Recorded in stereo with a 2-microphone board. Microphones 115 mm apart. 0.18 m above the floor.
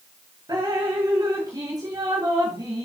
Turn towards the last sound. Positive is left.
turn(degrees=-35)  # may be behind; listen again after turning